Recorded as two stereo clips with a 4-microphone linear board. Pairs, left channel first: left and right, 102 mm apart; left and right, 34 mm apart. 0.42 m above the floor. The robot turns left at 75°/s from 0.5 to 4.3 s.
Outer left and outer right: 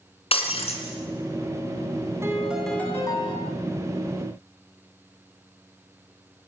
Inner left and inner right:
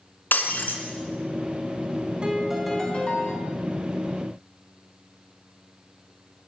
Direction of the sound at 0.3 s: 70° left (ahead or behind).